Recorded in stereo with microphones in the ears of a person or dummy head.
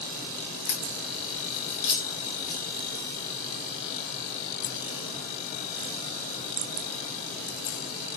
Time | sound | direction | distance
0.7 | a crack | 35° left (ahead or behind) | 1.3 m